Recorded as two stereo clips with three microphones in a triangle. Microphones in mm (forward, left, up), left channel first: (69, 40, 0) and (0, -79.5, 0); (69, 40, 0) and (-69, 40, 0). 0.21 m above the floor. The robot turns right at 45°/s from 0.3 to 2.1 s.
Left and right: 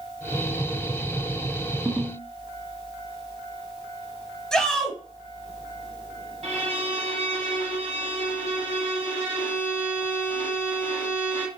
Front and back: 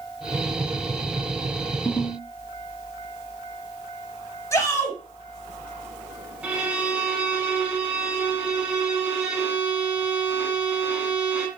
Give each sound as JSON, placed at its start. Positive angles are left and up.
{"t": 1.9, "sound": "a ringtone", "azimuth_deg": -45, "distance_m": 1.3}
{"t": 4.5, "sound": "a shout", "azimuth_deg": -20, "distance_m": 1.1}
{"t": 6.4, "sound": "a violin", "azimuth_deg": -105, "distance_m": 1.0}